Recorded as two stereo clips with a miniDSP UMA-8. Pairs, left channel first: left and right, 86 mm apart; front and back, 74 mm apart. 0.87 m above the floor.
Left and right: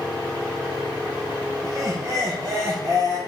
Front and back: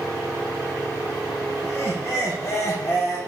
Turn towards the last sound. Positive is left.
turn(degrees=-50)